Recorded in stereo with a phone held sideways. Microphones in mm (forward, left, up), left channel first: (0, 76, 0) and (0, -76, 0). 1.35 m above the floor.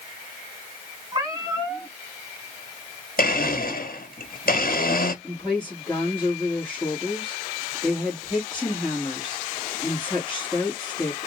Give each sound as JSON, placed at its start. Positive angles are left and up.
{"t": 1.1, "sound": "a cat meowing", "side_deg": -25, "distance_m": 2.5}
{"t": 3.2, "sound": "a blender", "side_deg": 75, "distance_m": 1.7}
{"t": 5.2, "sound": "a woman speaking", "side_deg": 5, "distance_m": 2.5}